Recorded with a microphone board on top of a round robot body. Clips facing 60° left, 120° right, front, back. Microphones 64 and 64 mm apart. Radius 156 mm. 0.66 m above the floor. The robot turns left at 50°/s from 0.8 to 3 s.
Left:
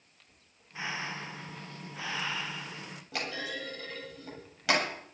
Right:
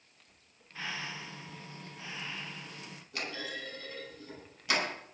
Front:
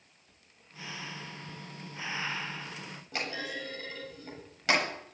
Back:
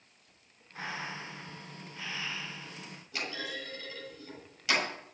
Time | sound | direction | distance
0.8 | breathing | 130° left | 0.6 m
3.1 | a clunk | 45° left | 8 m